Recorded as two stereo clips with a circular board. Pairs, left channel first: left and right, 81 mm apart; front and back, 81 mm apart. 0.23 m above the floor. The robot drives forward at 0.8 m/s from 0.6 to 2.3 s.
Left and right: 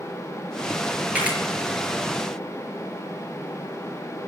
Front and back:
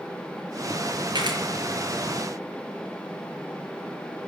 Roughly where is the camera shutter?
Behind.